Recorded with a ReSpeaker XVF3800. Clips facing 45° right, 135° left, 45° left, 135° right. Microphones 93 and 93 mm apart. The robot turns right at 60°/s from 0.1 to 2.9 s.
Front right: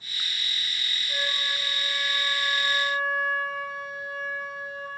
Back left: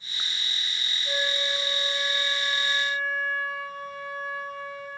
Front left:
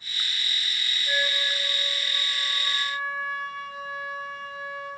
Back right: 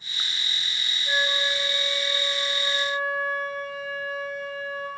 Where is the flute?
150° left, 9.5 m; by 4.9 s 100° right, 9.5 m.